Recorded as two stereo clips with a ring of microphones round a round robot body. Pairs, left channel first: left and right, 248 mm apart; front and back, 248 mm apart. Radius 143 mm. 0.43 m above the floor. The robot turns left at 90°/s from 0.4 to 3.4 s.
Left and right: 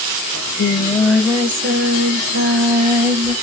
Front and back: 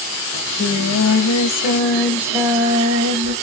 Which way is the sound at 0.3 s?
65° left.